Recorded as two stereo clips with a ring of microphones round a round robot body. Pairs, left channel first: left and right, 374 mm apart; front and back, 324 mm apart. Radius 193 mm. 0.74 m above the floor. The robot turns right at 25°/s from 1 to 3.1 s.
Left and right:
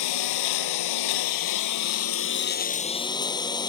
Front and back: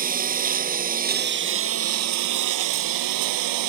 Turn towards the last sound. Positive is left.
turn(degrees=170)